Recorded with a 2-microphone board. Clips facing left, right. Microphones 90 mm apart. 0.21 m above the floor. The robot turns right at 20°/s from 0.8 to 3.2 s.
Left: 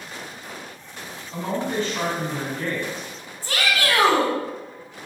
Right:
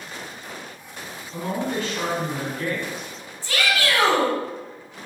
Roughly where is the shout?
Left.